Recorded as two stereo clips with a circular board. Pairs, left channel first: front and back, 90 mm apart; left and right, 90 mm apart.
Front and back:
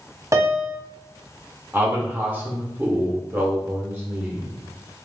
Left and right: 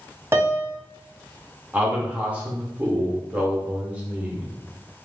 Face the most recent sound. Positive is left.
turn(degrees=-145)